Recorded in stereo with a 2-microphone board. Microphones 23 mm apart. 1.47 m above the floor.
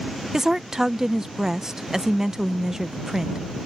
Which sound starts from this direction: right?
A woman speaking, at 0.3 s.